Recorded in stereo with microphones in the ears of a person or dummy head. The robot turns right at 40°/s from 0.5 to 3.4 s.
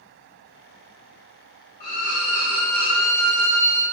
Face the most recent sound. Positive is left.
turn(degrees=-145)